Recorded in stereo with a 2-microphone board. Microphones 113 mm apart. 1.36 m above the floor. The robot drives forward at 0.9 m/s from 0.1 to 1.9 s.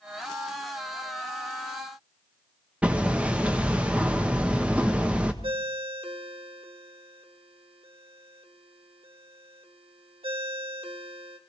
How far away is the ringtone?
About 1.3 m.